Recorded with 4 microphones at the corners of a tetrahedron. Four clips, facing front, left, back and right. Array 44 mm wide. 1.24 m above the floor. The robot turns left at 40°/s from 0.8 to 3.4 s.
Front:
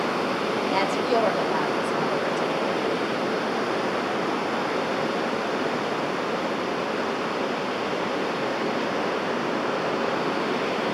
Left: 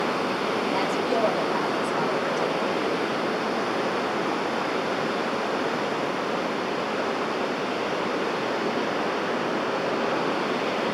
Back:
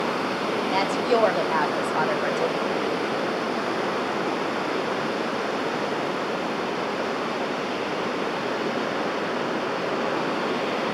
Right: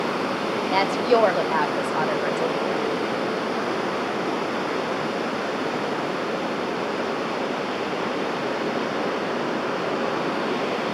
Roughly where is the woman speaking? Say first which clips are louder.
Right 9 dB, back 1 dB; right.